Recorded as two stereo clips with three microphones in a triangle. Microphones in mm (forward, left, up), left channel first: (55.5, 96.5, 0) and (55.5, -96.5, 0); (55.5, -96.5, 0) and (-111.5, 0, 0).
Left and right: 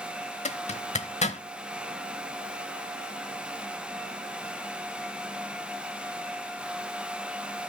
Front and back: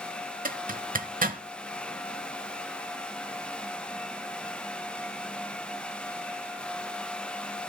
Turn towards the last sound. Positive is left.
turn(degrees=130)